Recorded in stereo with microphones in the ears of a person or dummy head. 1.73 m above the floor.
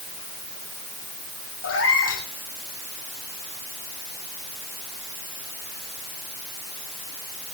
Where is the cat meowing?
75° left (ahead or behind), 5 m.